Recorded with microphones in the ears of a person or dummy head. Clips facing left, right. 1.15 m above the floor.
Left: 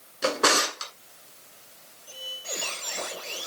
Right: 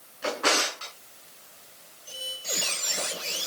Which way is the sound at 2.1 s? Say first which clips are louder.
Right 1 dB; 35° right (ahead or behind).